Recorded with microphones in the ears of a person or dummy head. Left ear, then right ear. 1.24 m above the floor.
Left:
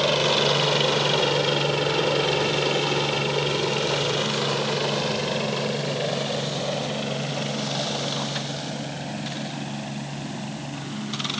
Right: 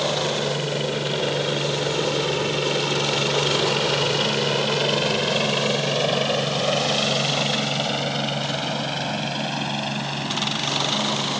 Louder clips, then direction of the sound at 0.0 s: Left 3 dB; 45° left (ahead or behind).